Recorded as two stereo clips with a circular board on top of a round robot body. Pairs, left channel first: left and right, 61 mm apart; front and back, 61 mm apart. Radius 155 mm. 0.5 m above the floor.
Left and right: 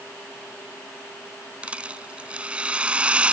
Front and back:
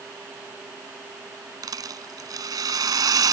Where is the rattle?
160° right.